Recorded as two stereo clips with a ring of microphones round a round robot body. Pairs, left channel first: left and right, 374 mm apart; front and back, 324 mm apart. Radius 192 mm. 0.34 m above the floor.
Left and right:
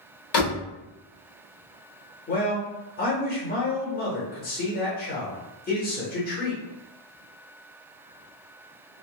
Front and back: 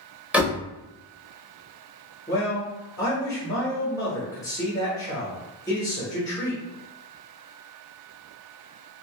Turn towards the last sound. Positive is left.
turn(degrees=70)